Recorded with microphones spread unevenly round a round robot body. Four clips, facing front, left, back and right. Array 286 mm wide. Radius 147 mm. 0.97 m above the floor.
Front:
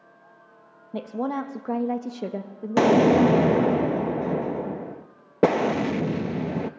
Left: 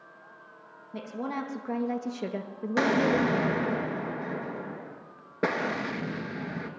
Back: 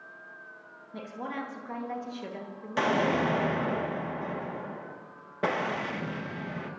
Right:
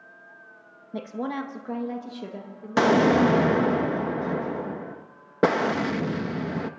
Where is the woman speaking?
25° right, 1.6 m; by 3.8 s 50° left, 2 m.